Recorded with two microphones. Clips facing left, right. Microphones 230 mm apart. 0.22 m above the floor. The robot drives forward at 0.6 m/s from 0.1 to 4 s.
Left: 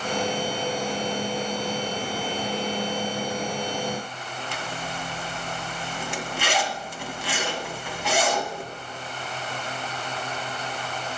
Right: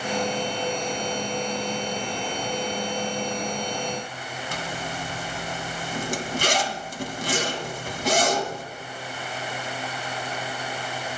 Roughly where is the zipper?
Right.